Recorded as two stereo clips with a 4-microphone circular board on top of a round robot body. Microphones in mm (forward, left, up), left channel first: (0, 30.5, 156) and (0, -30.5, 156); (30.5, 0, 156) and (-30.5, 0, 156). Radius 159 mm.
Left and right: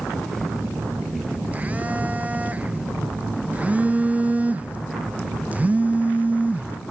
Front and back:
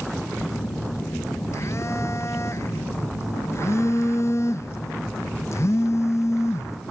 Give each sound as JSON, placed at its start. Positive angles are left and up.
{"t": 0.4, "sound": "a phone buzzing", "azimuth_deg": -30, "distance_m": 0.7}